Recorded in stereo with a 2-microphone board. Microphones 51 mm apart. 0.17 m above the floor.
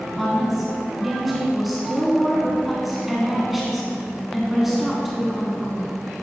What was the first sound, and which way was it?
A woman speaking, centre (ahead or behind).